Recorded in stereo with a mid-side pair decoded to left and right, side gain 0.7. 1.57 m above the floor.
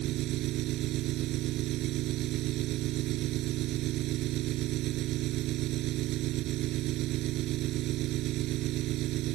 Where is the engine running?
55° right.